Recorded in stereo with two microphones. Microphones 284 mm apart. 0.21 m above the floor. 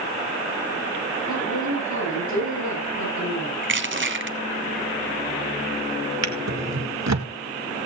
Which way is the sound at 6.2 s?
65° right (ahead or behind).